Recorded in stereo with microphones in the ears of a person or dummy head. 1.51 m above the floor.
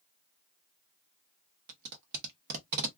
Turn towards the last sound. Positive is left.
turn(degrees=-50)  # may be behind; listen again after turning